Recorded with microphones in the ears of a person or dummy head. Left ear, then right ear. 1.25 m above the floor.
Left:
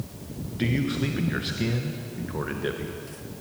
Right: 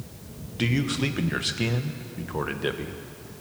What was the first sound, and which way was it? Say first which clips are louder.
A man speaking: right 1 dB; 30° right (ahead or behind).